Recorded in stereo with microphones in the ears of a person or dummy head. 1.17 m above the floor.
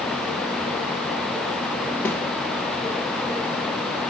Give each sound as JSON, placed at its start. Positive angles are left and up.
{"t": 2.0, "sound": "a snare drum", "side_deg": 10, "distance_m": 0.7}